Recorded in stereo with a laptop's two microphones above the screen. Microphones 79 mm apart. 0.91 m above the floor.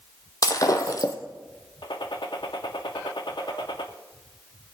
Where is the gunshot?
70° left (ahead or behind), 1.3 m.